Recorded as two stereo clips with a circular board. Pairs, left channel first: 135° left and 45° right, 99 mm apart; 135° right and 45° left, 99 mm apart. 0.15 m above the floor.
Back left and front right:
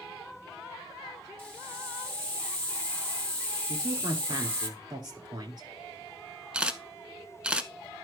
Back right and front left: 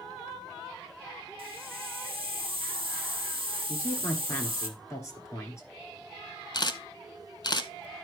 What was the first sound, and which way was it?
A hiss, 20° left.